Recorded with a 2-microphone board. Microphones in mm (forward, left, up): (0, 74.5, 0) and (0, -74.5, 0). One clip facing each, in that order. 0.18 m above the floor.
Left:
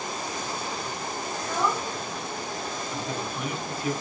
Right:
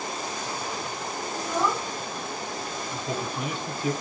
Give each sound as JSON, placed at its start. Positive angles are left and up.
{"t": 1.4, "sound": "a child speaking", "side_deg": -15, "distance_m": 1.0}
{"t": 2.9, "sound": "a man speaking", "side_deg": -25, "distance_m": 1.5}